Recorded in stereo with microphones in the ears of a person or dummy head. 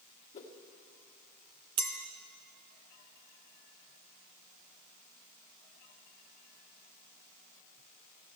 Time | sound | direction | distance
0.3 | a whoosh | 30° left (ahead or behind) | 2.0 m
1.8 | a clink | 25° right (ahead or behind) | 0.5 m